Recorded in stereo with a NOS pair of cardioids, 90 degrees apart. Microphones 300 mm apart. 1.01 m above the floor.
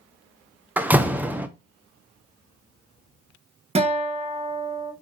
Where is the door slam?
5° right, 0.5 m.